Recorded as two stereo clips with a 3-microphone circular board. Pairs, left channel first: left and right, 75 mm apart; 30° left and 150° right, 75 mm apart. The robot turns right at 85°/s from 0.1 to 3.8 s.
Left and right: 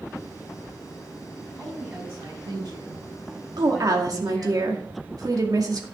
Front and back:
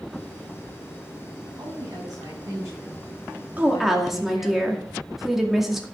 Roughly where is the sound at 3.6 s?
Right.